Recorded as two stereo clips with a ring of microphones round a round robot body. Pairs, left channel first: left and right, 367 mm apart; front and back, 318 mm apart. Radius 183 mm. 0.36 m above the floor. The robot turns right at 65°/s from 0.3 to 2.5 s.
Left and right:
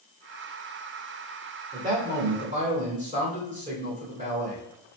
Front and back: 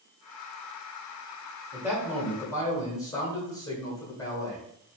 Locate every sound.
1.7 s a man speaking: 115° right, 1.4 m; by 4.6 s 65° right, 1.4 m